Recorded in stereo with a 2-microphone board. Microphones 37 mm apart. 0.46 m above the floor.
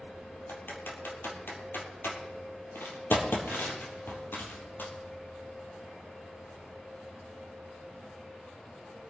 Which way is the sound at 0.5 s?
75° left (ahead or behind).